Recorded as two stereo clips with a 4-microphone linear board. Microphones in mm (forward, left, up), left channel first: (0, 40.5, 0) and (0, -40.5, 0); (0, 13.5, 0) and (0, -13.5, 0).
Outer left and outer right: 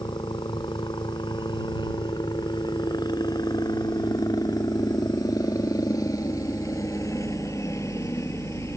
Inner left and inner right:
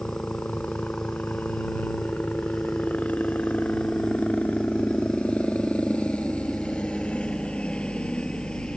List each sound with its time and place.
0.0 s a helicopter: 65° left (ahead or behind); by 8.8 s 35° left (ahead or behind)